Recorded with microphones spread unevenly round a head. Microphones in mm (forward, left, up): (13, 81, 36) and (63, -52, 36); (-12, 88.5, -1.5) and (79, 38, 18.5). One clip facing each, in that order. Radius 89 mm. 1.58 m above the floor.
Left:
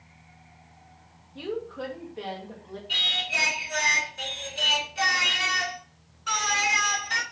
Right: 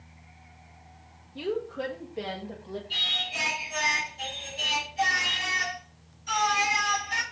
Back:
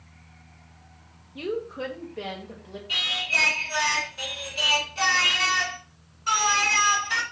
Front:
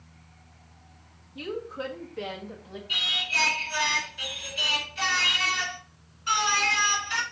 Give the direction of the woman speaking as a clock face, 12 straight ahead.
5 o'clock.